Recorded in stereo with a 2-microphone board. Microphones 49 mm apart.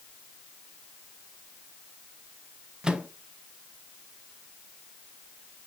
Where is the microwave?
15° right (ahead or behind), 0.9 m.